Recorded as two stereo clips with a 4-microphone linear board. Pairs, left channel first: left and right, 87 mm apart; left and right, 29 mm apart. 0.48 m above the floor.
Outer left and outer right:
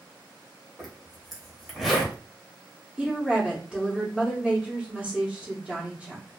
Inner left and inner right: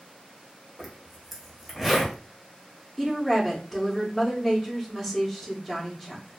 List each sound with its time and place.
0.8 s a zipper: 5° right (ahead or behind), 0.8 m
3.0 s a woman speaking: 10° right (ahead or behind), 0.8 m